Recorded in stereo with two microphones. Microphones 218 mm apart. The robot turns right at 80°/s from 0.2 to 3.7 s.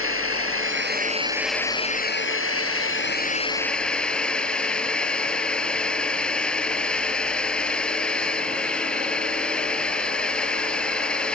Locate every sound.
0.0 s a drone: 105° right; by 11.4 s 175° left